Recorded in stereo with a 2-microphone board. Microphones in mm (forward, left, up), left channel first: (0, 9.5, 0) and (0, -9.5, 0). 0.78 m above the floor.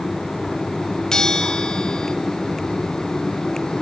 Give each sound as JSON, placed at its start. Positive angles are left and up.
{"t": 1.1, "sound": "a bell", "side_deg": 35, "distance_m": 1.6}